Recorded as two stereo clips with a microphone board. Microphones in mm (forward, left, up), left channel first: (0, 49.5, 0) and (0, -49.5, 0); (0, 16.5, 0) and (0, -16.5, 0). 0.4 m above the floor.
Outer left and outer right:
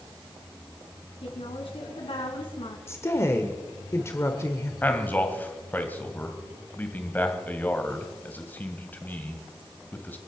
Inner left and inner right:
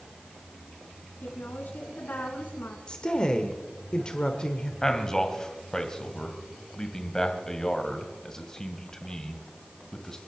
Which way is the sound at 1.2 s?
65° left (ahead or behind).